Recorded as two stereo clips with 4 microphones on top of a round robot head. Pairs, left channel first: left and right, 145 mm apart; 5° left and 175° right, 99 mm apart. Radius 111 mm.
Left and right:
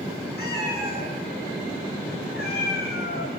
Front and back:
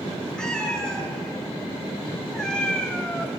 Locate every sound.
0.4 s a cat meowing: 85° left, 6.5 m